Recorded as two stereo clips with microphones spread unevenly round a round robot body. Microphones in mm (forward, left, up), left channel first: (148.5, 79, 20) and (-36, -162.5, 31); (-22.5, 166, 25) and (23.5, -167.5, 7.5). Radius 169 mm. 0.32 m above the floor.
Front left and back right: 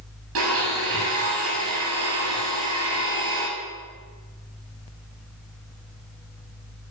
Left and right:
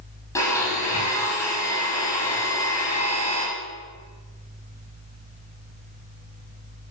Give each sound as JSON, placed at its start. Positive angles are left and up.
{"t": 0.3, "sound": "a blender", "azimuth_deg": 180, "distance_m": 6.5}